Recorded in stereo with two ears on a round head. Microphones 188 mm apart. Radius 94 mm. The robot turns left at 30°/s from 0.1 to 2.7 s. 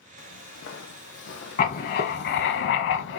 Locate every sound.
0.2 s footsteps: 65° left (ahead or behind), 1.3 m
1.6 s writing: 135° left, 0.7 m; by 3.2 s 100° left, 0.7 m